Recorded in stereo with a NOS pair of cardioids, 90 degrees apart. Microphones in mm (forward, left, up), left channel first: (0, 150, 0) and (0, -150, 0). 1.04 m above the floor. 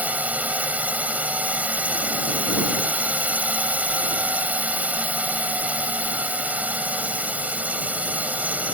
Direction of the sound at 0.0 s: 5° right.